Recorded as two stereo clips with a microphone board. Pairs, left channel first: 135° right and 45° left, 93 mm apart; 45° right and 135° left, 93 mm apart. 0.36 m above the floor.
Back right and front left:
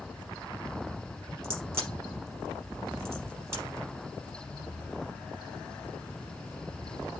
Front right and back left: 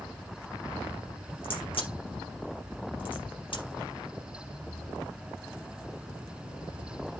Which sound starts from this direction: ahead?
A crack, at 1.4 s.